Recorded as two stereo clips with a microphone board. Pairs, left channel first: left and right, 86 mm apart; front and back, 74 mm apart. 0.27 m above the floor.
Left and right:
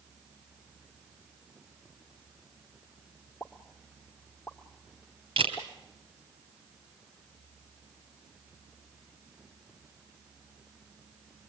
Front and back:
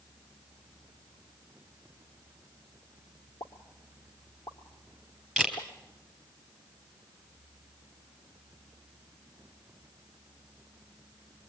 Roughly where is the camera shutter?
Right.